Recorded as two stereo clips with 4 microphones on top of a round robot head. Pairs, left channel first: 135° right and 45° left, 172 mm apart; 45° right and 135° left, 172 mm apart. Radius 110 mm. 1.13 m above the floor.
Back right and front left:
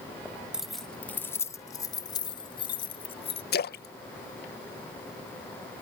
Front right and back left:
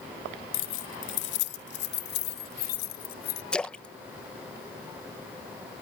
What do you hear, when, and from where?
0.5 s keys jangling: 45° right; by 3.4 s 80° right
3.5 s a splash: 130° right